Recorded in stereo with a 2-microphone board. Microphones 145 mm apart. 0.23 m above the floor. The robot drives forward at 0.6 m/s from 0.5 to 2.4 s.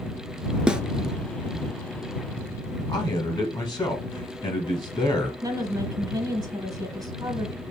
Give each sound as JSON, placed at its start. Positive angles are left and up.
{"t": 0.7, "sound": "a snare drum", "side_deg": -5, "distance_m": 0.5}
{"t": 2.9, "sound": "a man speaking", "side_deg": 35, "distance_m": 1.3}
{"t": 5.4, "sound": "a woman speaking", "side_deg": -25, "distance_m": 1.0}